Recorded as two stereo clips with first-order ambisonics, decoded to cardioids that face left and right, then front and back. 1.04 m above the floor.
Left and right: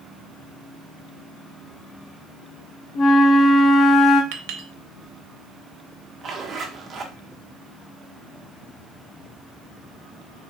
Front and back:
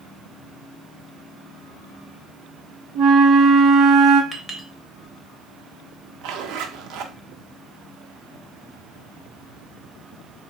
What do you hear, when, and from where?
3.0 s a flute: 140° left, 0.6 m
4.3 s a clink: 85° right, 0.6 m
6.2 s a zipper: 155° right, 0.6 m